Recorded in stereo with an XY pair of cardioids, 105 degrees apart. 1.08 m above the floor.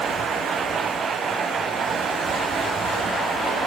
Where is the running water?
60° right, 4 m.